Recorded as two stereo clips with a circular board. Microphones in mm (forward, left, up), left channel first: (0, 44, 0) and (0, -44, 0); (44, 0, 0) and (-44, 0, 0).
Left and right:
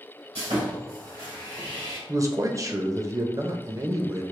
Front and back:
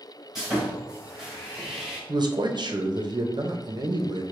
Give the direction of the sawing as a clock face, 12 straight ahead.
3 o'clock.